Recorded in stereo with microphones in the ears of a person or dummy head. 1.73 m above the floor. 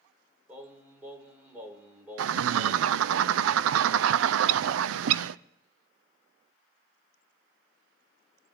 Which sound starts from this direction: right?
A bird, at 2.2 s.